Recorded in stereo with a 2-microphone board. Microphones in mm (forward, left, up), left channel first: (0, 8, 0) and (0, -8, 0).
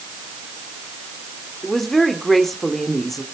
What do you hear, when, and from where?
1.6 s a woman speaking: 10° left (ahead or behind), 1.9 m